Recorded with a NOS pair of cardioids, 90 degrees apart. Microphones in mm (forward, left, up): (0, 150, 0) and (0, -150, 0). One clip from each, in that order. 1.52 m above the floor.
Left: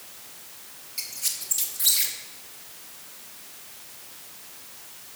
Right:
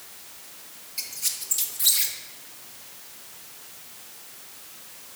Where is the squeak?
Straight ahead, 1.3 m.